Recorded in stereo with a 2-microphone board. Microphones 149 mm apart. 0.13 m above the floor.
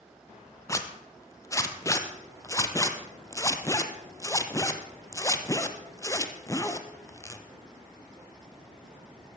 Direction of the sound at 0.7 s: 20° left (ahead or behind).